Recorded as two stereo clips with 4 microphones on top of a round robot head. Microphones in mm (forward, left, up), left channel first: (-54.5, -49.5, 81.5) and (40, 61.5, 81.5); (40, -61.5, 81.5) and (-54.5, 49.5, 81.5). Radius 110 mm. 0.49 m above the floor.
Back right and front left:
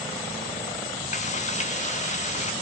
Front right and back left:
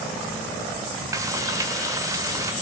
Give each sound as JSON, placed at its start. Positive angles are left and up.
{"t": 1.1, "sound": "frying", "azimuth_deg": -165, "distance_m": 2.0}